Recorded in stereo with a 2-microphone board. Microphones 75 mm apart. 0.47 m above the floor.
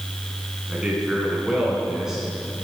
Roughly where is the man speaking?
Centre.